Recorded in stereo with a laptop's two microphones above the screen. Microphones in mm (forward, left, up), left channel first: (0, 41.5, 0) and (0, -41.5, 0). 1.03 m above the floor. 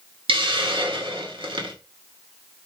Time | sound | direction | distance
0.3 | a hiss | 75° right (ahead or behind) | 1.8 m